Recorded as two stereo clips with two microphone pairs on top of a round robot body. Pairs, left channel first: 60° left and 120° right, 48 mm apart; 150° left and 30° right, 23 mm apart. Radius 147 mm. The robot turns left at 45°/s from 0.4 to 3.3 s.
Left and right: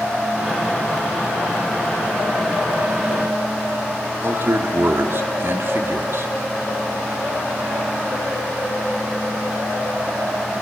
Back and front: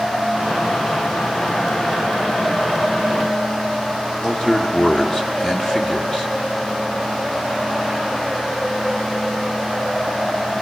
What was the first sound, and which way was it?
A man speaking, 155° right.